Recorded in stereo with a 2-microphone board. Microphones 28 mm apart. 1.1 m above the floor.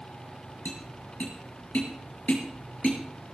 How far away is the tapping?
About 5 m.